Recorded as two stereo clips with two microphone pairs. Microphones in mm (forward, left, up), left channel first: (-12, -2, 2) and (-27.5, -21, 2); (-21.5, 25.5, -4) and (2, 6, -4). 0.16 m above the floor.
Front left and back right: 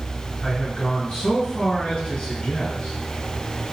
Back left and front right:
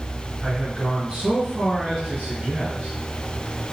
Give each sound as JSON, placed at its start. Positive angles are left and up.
{"t": 0.4, "sound": "a man speaking", "azimuth_deg": 35, "distance_m": 2.5}